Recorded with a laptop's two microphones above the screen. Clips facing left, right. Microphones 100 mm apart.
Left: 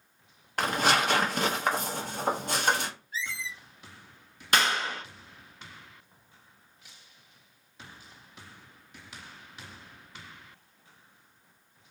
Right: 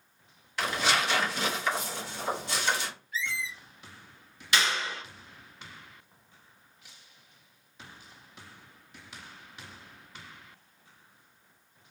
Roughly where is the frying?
No frying in this recording.